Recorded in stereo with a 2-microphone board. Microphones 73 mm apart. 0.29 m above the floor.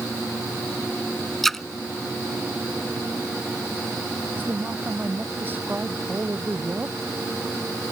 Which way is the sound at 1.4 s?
5° left (ahead or behind).